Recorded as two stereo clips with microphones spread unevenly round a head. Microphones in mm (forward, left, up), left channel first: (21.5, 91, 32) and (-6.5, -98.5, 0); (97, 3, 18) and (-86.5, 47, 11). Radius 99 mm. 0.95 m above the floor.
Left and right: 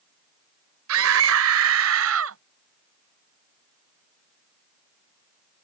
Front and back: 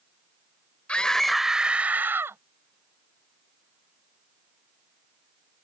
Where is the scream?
100° right; by 2.4 s 115° right.